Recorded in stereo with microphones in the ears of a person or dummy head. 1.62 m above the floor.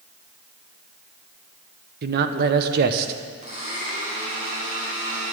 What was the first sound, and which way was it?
A man speaking, 55° right (ahead or behind).